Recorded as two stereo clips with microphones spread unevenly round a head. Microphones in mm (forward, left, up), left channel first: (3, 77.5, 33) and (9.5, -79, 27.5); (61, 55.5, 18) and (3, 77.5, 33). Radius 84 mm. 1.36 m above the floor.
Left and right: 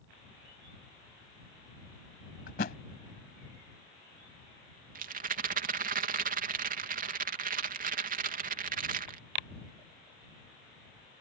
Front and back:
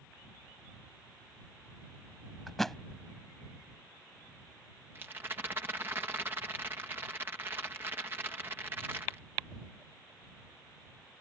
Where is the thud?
75° left.